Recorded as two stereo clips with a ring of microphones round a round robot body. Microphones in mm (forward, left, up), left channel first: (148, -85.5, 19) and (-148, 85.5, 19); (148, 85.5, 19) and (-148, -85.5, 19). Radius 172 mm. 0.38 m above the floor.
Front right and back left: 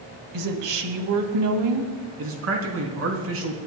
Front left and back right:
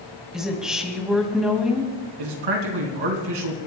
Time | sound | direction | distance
0.3 | a woman speaking | 120° left | 2.5 m
2.2 | a man speaking | 160° right | 3.5 m